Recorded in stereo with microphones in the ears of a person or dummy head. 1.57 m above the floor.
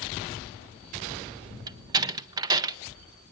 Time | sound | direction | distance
1.7 | a door slam | 25° right (ahead or behind) | 0.5 m